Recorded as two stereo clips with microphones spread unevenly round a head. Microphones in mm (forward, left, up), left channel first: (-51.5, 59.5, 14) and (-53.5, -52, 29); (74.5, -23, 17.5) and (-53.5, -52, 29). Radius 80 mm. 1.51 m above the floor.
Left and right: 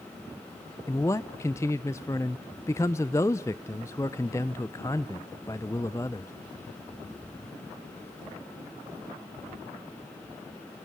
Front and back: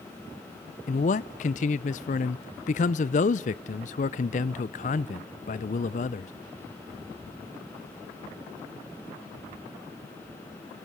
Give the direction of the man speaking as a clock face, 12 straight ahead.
12 o'clock.